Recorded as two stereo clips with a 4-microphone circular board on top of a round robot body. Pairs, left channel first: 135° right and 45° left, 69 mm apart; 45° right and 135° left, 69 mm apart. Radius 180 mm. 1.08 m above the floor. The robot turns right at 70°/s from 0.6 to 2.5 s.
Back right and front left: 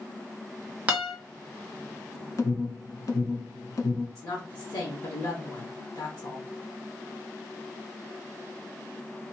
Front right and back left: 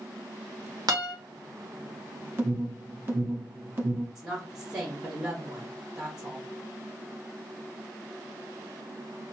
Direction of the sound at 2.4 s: 170° right.